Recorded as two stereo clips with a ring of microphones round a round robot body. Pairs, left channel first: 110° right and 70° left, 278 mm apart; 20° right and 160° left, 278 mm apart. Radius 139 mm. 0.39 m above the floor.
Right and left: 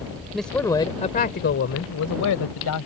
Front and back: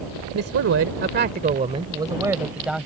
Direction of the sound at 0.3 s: 155° left.